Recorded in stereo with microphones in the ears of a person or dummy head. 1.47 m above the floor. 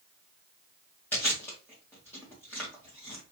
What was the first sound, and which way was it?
Chewing, 15° left (ahead or behind).